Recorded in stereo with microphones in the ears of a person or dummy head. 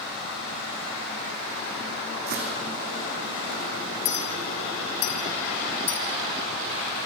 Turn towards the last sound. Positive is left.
turn(degrees=60)  # may be behind; listen again after turning